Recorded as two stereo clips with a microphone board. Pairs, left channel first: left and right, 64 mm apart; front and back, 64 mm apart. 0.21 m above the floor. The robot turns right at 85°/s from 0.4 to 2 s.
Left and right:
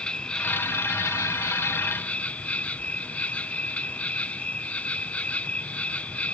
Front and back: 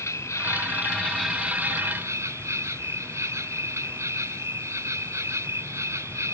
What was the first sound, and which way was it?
An insect, 20° left.